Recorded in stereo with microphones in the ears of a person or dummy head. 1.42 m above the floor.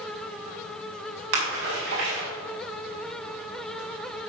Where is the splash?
75° right (ahead or behind), 5 m.